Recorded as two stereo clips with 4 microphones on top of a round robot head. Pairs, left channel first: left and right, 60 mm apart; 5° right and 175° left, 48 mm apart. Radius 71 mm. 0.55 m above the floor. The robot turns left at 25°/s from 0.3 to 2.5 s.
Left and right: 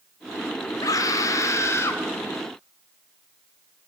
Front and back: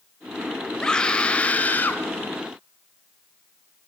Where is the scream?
70° left, 3 m; by 2.0 s 40° left, 3 m.